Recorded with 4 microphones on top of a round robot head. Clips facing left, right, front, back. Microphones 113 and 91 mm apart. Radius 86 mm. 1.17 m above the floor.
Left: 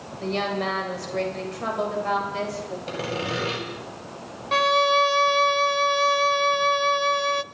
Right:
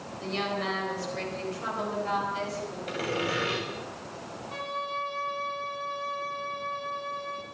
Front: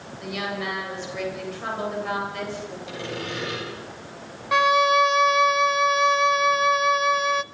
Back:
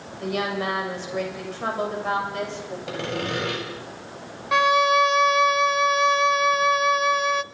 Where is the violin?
85° left, 0.6 m.